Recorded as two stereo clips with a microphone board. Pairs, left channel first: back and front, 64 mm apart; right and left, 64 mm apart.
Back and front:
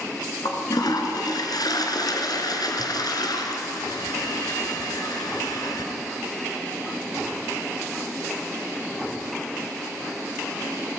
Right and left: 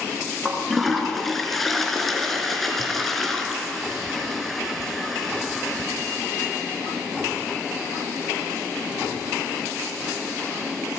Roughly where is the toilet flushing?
Behind.